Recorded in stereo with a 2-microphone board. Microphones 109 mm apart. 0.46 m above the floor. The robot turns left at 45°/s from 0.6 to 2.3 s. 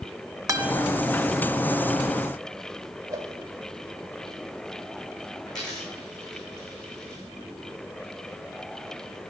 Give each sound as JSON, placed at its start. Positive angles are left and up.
{"t": 0.5, "sound": "a guitar", "side_deg": -30, "distance_m": 1.2}
{"t": 3.1, "sound": "a whoosh", "side_deg": -30, "distance_m": 1.8}
{"t": 5.5, "sound": "a dropped coin", "side_deg": 40, "distance_m": 6.0}